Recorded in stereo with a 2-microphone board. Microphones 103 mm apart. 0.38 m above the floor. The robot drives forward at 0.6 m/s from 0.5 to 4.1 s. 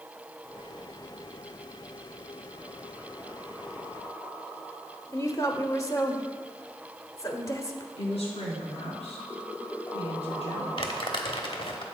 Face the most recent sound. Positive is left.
turn(degrees=55)  # may be behind; listen again after turning